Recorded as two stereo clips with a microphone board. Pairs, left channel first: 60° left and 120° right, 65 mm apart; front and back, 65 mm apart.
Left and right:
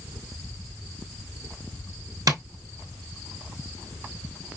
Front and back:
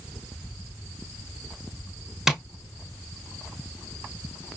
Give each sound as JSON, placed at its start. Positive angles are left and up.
{"t": 2.3, "sound": "tapping", "azimuth_deg": -95, "distance_m": 0.7}